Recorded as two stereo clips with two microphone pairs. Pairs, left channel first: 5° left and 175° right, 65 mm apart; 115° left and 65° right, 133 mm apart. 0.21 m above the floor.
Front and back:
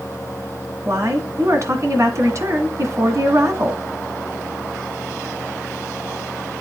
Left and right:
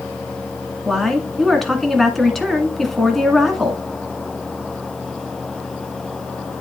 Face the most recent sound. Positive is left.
turn(degrees=-155)